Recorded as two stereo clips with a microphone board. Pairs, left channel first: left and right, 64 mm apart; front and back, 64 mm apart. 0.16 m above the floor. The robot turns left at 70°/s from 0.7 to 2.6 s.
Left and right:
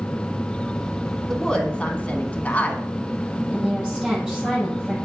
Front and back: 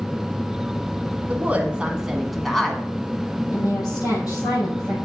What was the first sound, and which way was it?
A woman speaking, 165° left.